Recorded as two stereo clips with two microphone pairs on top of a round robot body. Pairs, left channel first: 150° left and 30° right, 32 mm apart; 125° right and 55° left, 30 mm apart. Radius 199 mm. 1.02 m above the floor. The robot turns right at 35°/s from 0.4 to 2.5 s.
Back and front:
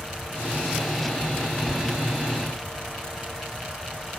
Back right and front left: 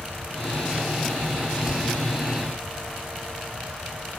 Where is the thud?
115° right, 4.5 m; by 2.1 s 100° right, 4.5 m.